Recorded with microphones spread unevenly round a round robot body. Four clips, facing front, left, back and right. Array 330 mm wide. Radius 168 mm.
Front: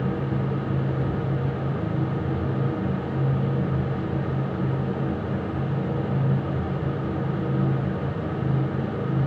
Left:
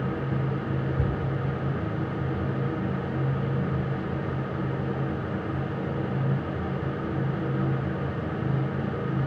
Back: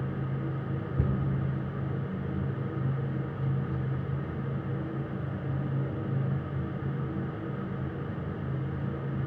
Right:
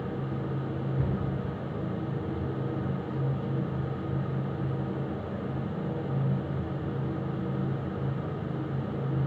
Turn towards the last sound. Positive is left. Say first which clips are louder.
# left 2 dB, front 4 dB
turn(degrees=160)